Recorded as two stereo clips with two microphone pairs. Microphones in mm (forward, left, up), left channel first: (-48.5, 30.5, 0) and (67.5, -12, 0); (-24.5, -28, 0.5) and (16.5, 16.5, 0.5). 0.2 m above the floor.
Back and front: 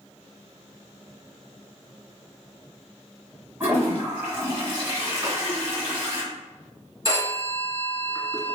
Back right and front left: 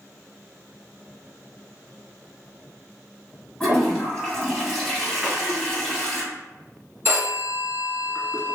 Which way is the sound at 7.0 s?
30° left.